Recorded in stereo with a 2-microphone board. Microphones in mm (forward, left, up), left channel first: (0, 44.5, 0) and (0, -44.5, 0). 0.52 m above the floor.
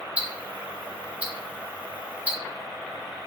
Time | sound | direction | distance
0.2 | ticking | 15° right (ahead or behind) | 0.7 m